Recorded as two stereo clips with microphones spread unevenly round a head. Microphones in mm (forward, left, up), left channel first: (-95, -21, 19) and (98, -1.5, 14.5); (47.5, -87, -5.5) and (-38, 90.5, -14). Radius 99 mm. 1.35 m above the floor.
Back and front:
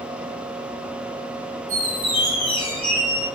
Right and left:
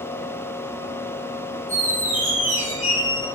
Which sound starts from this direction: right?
A squeak, at 1.7 s.